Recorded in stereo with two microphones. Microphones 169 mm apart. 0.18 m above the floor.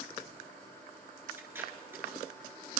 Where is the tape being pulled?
15° right (ahead or behind), 1.6 m.